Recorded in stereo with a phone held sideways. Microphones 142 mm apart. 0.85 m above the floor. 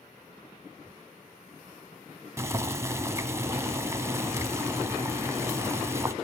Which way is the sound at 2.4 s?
20° right (ahead or behind).